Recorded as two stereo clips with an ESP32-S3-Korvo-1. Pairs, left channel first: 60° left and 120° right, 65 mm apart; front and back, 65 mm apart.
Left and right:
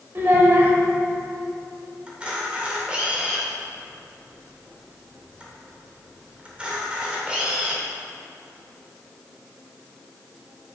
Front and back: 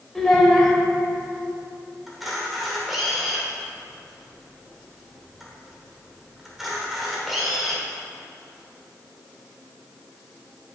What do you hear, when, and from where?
0.1 s a child speaking: 80° right, 1.3 m
2.1 s a camera shutter: 100° right, 1.5 m